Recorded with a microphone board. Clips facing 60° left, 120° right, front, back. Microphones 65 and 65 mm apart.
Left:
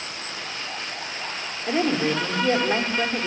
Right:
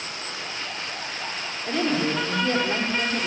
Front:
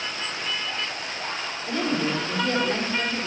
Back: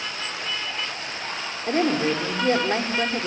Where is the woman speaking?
130° left, 5 m; by 3.3 s 120° left, 4.5 m.